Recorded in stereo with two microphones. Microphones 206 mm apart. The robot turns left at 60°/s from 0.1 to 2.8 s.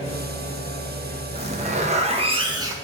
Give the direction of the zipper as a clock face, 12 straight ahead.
2 o'clock.